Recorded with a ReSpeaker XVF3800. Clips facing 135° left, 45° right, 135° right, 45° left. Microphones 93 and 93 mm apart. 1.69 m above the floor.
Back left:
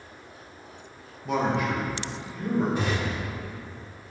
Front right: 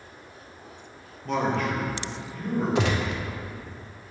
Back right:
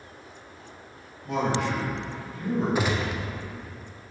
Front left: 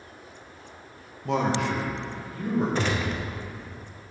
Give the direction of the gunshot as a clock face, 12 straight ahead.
2 o'clock.